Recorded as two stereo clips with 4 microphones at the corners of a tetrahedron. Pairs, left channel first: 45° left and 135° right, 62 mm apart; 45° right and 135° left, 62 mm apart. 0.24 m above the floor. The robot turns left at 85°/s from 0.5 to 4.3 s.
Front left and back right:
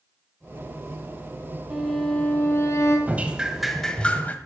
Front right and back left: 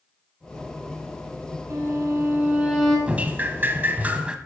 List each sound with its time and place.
1.7 s a violin: 155° left, 2.5 m; by 3.0 s 45° left, 2.5 m
3.1 s dripping: 175° right, 0.8 m; by 4.4 s 80° left, 0.8 m